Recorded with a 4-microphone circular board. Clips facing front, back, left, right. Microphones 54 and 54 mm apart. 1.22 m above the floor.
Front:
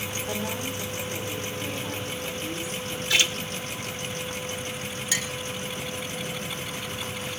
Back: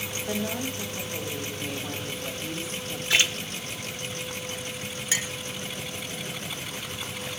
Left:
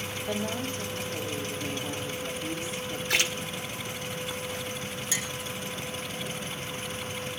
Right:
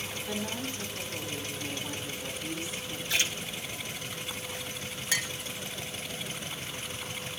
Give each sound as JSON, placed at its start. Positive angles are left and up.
{"t": 0.3, "sound": "a woman speaking", "azimuth_deg": 150, "distance_m": 5.0}
{"t": 3.1, "sound": "a splash", "azimuth_deg": 120, "distance_m": 1.3}
{"t": 5.1, "sound": "a clink", "azimuth_deg": -120, "distance_m": 1.0}